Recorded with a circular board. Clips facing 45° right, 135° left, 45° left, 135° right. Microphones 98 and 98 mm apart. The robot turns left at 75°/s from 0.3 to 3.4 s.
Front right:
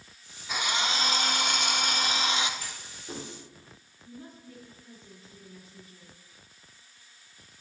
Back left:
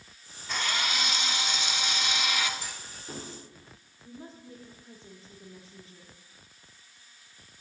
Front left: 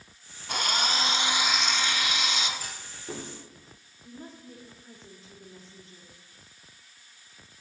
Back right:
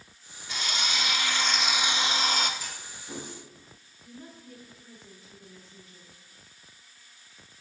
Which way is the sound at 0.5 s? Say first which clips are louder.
Front right 2 dB, front left 4 dB; 40° left.